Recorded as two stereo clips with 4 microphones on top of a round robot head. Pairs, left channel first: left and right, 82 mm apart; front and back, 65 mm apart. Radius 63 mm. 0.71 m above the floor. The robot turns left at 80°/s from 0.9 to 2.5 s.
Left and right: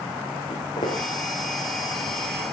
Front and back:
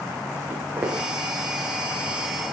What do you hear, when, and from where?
0.5 s footsteps: 125° left, 6.5 m; by 1.0 s 115° left, 6.5 m